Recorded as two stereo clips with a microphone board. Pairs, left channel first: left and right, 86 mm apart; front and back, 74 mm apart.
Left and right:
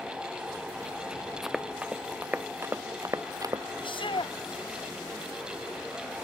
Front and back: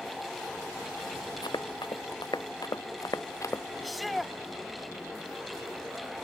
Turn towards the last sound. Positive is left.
turn(degrees=90)